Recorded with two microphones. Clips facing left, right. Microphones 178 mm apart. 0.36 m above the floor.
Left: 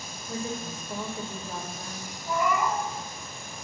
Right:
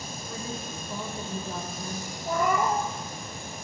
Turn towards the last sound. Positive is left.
turn(degrees=-45)  # may be behind; listen again after turning